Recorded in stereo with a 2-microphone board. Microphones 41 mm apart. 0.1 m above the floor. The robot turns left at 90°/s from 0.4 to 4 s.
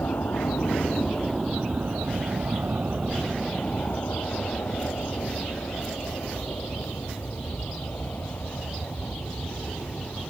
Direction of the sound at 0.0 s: 65° left (ahead or behind).